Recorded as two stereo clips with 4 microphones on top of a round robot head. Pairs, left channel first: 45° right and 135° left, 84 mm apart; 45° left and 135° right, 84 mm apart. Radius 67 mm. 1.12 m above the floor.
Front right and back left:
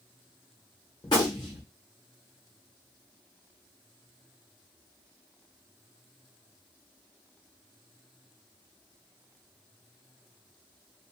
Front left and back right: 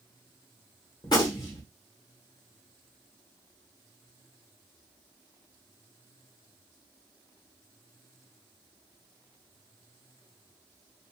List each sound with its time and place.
1.0 s a gunshot: straight ahead, 0.9 m